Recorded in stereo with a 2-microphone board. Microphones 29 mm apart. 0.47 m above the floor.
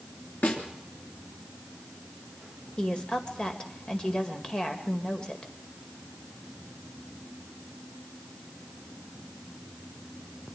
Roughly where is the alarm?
I don't hear an alarm.